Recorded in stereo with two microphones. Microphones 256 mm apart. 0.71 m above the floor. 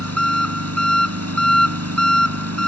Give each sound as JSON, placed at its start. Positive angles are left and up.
{"t": 0.0, "sound": "an engine running", "side_deg": -70}